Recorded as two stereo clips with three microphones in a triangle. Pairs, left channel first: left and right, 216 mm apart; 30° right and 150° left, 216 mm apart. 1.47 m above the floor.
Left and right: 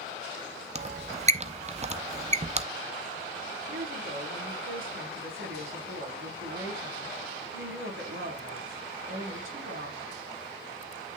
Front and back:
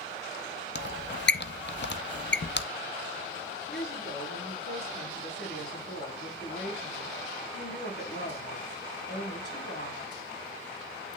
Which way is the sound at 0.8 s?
35° right.